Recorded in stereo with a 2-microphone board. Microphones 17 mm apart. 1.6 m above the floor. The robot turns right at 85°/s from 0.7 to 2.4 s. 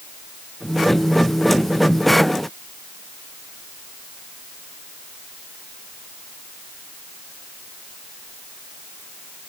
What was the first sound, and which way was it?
Only background noise.